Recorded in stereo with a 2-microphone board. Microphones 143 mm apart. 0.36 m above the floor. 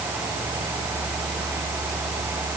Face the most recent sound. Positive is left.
No sound to turn to.